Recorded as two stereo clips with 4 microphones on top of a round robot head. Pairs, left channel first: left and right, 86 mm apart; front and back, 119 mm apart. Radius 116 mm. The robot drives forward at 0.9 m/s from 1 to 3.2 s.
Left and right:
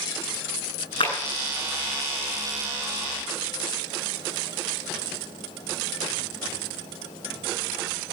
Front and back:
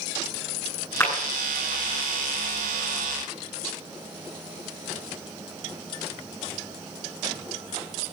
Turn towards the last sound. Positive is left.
turn(degrees=90)